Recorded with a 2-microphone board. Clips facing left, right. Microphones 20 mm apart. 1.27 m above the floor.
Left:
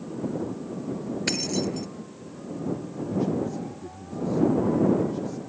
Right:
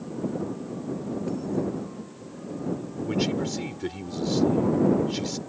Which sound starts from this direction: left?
Keys jangling, at 1.3 s.